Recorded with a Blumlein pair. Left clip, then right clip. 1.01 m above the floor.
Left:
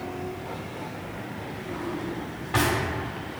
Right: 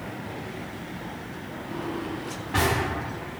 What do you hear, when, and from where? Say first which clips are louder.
1.7 s a drawer: right 1 dB; 15° left, 1.3 m